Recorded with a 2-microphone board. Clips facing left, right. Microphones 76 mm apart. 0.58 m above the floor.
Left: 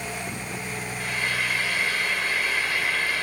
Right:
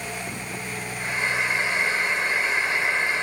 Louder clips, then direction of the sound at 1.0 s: Right 3 dB; 25° right (ahead or behind).